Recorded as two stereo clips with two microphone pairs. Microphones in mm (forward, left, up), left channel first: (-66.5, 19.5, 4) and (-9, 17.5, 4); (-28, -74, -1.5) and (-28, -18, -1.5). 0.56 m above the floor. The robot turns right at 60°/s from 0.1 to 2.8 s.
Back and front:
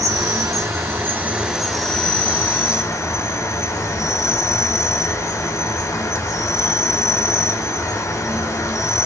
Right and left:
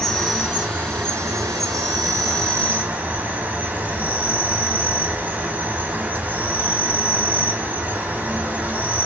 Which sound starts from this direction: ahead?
An insect, at 0.0 s.